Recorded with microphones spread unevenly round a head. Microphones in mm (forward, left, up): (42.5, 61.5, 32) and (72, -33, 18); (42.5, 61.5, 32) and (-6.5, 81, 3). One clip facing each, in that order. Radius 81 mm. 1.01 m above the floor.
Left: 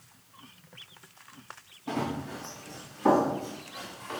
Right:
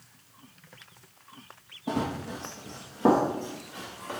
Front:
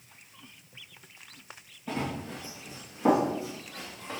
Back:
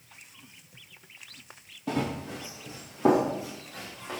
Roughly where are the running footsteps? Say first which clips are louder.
Right 2 dB, back 3 dB; behind right.